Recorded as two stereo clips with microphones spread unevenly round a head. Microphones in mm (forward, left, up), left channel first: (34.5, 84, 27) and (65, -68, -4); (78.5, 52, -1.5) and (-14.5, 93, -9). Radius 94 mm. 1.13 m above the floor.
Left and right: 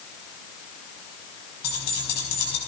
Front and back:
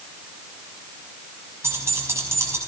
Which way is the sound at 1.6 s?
90° left.